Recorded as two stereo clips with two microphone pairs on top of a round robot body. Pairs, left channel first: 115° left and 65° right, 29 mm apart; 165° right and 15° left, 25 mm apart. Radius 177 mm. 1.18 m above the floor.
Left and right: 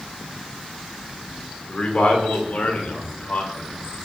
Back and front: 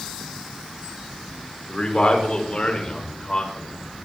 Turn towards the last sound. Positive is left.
turn(degrees=145)